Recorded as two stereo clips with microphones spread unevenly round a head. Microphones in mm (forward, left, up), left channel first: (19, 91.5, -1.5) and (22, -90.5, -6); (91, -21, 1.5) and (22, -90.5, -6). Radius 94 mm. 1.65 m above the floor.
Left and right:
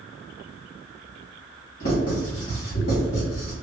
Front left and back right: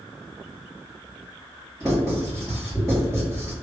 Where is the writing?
135° left, 1.8 m.